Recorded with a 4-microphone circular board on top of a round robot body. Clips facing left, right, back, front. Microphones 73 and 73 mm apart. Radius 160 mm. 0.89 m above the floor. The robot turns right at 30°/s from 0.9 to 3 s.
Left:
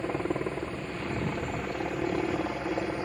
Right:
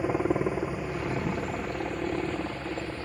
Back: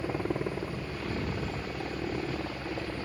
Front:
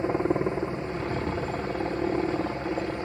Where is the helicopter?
25° right; by 3.1 s 40° left.